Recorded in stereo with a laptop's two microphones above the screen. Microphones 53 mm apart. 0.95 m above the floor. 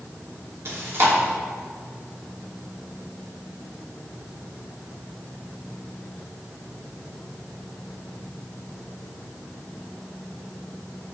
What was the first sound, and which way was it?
Chewing, 55° right (ahead or behind).